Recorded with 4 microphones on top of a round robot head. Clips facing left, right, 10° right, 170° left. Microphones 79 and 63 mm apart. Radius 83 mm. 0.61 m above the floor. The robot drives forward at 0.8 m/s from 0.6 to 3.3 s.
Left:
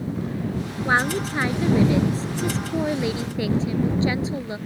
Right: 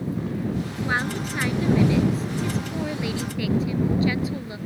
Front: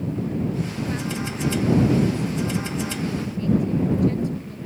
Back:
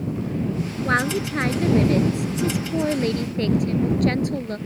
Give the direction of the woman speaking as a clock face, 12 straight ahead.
7 o'clock.